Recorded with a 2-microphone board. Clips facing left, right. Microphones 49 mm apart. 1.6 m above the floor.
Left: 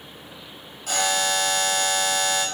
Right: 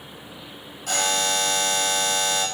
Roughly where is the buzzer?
Centre.